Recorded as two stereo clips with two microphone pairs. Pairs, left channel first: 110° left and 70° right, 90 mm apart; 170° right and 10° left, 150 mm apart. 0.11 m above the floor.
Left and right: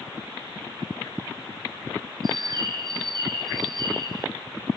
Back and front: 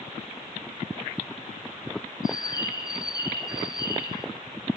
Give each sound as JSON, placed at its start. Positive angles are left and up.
{"t": 2.2, "sound": "a bird", "azimuth_deg": -105, "distance_m": 1.5}